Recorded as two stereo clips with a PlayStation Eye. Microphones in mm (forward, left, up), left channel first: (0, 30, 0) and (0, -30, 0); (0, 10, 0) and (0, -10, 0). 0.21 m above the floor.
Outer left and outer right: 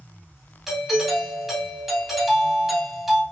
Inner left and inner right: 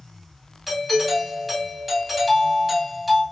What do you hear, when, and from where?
0.7 s a doorbell: 5° right (ahead or behind), 1.8 m